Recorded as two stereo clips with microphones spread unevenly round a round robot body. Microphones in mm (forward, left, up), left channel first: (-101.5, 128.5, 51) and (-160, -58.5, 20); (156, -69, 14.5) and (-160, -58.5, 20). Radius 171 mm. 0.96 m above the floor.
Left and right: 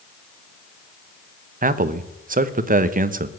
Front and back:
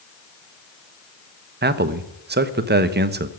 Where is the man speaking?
130° right, 1.1 m.